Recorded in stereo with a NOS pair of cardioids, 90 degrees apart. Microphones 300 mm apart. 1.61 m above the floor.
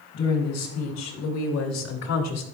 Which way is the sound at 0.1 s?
60° left.